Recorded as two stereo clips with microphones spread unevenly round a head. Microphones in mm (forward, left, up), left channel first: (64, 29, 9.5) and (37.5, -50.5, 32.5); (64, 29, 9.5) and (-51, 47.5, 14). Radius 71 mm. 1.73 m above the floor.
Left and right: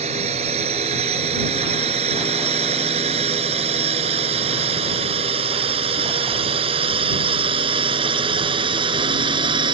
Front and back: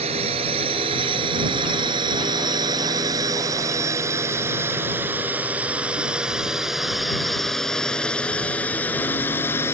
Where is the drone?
135° right; by 9.7 s 85° right.